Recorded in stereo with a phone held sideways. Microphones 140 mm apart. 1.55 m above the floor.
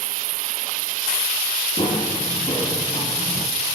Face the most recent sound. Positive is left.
turn(degrees=30)  # may be behind; listen again after turning